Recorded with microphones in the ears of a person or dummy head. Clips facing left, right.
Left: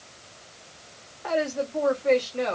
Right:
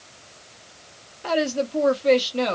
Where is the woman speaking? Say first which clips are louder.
Right 3 dB; 50° right (ahead or behind), 1.5 m.